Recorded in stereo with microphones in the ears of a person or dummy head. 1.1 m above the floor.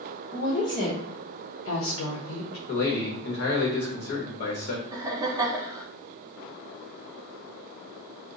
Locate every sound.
0.3 s a woman speaking: 45° left (ahead or behind), 1.3 m; by 2.6 s 70° left (ahead or behind), 1.1 m
2.7 s a man speaking: 40° left (ahead or behind), 1.1 m
4.9 s laughter: 30° right (ahead or behind), 0.6 m